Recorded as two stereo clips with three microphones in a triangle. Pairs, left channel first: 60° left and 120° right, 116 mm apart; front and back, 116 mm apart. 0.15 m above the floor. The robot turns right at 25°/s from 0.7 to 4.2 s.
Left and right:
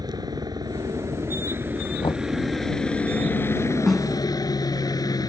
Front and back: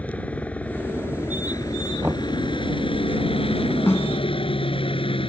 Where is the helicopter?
75° right; by 5.3 s 15° left.